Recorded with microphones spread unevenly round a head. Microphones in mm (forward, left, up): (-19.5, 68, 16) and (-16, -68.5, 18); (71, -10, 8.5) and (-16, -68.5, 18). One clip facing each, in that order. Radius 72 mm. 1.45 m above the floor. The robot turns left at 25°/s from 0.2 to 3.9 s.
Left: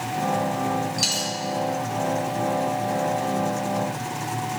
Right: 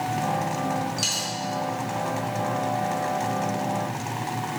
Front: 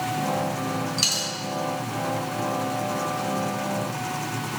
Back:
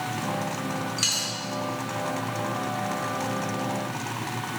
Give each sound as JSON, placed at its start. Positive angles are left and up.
{"t": 1.0, "sound": "a dropped coin", "azimuth_deg": 5, "distance_m": 1.3}